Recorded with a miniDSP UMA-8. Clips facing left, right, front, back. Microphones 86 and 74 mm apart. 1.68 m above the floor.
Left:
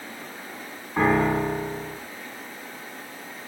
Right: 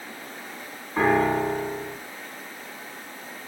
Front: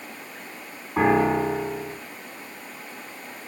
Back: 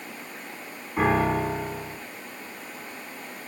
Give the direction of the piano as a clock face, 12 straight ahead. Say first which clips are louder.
Even, front 3 dB; 12 o'clock.